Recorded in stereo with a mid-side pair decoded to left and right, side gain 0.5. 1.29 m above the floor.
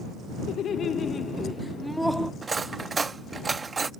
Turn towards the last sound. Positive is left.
turn(degrees=-30)